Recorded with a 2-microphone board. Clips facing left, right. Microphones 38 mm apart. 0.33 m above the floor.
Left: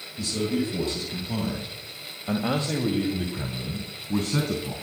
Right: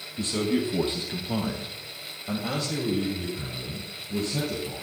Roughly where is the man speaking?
Right.